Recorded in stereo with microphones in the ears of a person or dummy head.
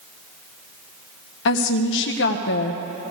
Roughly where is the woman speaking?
Left.